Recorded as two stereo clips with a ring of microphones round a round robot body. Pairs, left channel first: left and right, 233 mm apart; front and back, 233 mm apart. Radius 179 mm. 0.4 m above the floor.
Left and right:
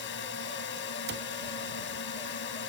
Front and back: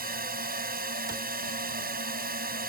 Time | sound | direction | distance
0.0 | a drone | 130° left | ?
1.1 | a cupboard door | 110° right | ?